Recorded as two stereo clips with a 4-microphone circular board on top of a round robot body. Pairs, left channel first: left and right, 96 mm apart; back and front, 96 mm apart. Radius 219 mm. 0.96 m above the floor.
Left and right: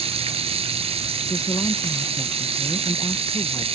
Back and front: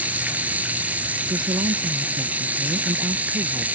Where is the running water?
75° right.